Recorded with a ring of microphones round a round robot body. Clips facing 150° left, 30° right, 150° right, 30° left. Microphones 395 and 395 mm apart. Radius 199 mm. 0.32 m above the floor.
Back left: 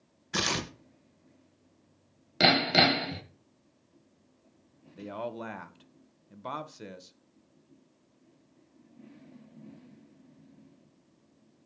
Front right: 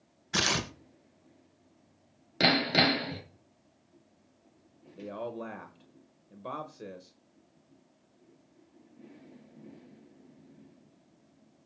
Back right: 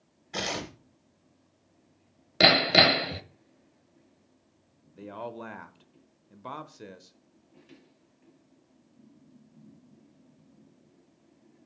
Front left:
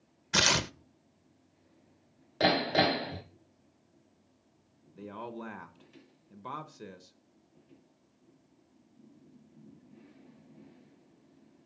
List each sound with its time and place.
0.3 s tearing paper: 55° left, 0.6 m
2.4 s hammering: 130° right, 1.2 m
5.0 s a man speaking: 125° left, 0.9 m